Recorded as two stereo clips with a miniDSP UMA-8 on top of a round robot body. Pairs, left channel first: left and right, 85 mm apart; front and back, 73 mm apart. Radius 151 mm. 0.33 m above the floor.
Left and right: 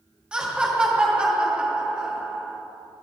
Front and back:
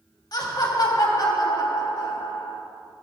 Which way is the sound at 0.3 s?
10° right.